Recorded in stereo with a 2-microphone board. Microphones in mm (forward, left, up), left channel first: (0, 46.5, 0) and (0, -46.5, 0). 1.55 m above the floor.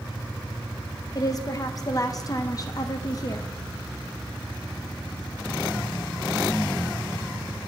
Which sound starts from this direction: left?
A woman speaking, at 1.1 s.